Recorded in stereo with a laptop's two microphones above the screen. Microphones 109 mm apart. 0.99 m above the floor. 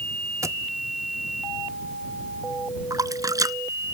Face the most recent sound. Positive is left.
turn(degrees=-35)  # may be behind; listen again after turning